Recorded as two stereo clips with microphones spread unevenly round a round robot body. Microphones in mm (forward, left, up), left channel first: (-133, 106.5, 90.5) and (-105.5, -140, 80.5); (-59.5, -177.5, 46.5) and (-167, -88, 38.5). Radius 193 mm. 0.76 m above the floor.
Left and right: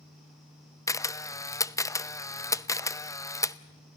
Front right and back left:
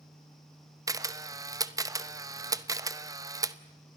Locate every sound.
0.9 s a camera shutter: 170° left, 0.8 m